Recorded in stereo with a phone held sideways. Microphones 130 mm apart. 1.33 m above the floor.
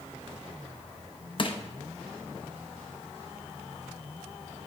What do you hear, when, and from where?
1.4 s crushing: 40° left (ahead or behind), 0.7 m